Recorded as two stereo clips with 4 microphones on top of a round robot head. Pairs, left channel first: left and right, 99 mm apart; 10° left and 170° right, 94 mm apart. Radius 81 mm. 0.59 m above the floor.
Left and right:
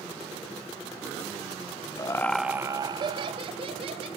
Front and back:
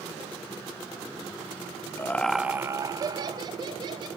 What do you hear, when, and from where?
2.0 s laughter: 60° left, 0.7 m; by 4.1 s 125° right, 2 m